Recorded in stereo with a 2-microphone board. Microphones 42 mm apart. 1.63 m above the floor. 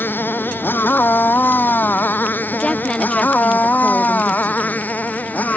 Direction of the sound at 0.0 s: 55° left (ahead or behind).